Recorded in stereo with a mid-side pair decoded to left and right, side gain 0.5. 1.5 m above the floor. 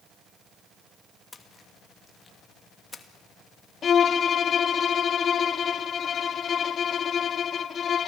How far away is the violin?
About 1.0 m.